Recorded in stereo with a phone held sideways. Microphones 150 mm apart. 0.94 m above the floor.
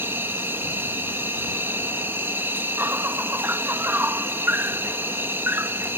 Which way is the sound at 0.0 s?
15° right (ahead or behind).